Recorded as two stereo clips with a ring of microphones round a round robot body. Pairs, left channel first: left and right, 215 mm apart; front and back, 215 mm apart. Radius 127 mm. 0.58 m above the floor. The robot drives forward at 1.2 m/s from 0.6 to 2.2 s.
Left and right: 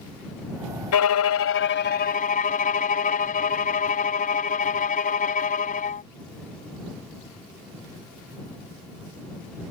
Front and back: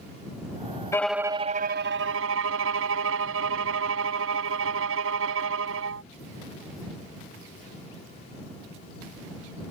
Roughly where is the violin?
Left.